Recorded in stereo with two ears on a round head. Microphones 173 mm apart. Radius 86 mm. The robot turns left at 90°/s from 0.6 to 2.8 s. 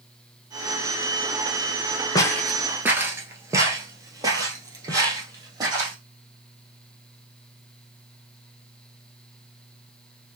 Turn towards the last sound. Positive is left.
turn(degrees=-20)  # may be behind; listen again after turning